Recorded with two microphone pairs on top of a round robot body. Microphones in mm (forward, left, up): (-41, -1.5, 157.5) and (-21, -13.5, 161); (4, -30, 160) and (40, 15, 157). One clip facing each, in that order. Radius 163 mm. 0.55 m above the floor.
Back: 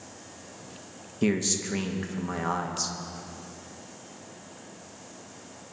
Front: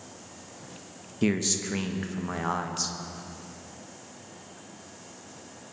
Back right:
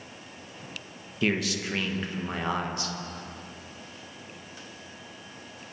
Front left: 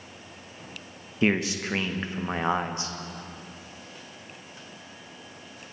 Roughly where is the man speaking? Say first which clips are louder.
Even, front left 3 dB; ahead left.